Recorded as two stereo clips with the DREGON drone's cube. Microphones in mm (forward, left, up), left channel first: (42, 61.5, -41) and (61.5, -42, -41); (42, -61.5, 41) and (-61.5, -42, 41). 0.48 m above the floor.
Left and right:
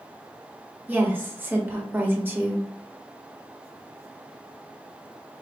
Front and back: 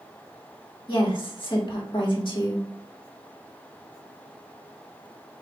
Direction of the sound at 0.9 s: 15° right.